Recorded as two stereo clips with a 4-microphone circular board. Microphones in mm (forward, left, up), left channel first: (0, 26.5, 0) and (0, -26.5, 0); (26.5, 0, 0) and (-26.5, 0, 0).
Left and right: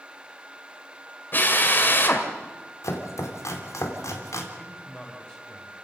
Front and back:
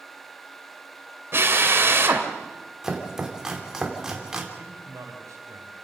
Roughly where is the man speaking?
Behind.